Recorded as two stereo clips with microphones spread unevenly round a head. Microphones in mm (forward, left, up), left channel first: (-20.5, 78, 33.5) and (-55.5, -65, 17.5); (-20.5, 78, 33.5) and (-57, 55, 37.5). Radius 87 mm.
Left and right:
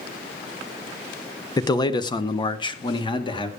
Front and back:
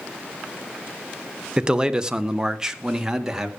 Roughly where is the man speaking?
Behind left.